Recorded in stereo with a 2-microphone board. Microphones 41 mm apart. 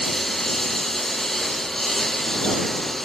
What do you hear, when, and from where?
0.0 s a lawn mower: 5° left (ahead or behind)